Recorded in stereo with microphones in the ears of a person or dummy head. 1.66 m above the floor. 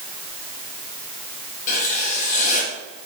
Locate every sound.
1.7 s writing: 45° left (ahead or behind), 1.6 m